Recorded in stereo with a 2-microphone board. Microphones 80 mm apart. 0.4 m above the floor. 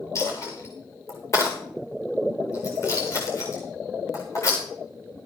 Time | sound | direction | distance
0.1 | a dropped coin | 40° left (ahead or behind) | 7.5 m